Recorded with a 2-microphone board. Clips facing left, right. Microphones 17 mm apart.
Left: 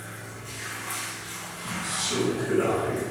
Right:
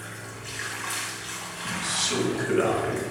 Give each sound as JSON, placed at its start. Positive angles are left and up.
{"t": 0.0, "sound": "running water", "side_deg": -45, "distance_m": 1.1}
{"t": 1.6, "sound": "a man speaking", "side_deg": -35, "distance_m": 1.1}